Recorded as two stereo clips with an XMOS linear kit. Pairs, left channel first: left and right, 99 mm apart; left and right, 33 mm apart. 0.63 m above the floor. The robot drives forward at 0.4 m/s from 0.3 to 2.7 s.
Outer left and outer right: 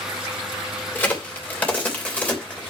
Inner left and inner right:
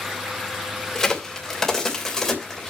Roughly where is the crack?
Centre.